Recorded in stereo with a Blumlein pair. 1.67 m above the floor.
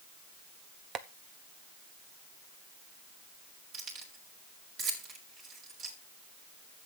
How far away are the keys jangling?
About 4 m.